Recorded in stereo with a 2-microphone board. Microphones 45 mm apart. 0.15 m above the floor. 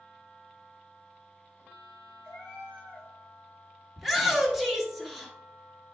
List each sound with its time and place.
2.2 s a cat meowing: 20° right (ahead or behind), 4.5 m
4.0 s a shout: 5° right (ahead or behind), 2 m